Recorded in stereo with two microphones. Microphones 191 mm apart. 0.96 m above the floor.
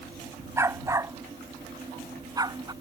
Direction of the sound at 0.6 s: 15° right (ahead or behind).